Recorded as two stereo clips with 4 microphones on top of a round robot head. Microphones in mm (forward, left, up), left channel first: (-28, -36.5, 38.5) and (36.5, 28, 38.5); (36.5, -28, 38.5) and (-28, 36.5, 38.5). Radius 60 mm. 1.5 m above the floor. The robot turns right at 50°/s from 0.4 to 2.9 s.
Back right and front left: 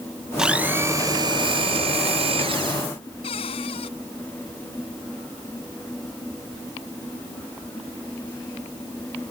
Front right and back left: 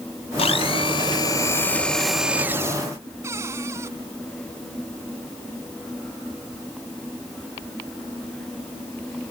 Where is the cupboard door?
160° right.